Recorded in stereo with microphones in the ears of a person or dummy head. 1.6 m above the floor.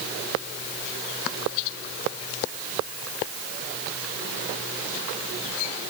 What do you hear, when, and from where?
Only background noise.